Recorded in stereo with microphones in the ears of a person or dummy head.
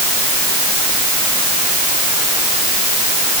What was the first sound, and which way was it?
Only background noise.